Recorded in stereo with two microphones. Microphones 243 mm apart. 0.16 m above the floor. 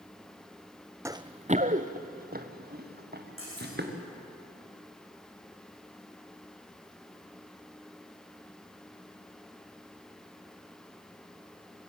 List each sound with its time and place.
1.1 s running footsteps: 10° right (ahead or behind), 0.5 m; by 3.9 s 45° right (ahead or behind), 3.5 m
3.4 s cutlery clinking: 60° right (ahead or behind), 7.5 m